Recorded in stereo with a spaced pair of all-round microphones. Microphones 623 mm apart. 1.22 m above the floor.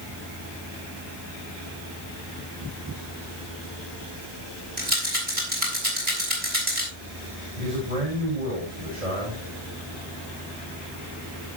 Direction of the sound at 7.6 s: 80° right.